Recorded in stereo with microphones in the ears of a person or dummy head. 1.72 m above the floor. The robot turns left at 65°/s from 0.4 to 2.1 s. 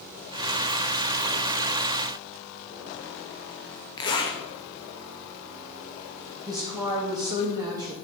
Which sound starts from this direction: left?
A zipper, at 4.0 s.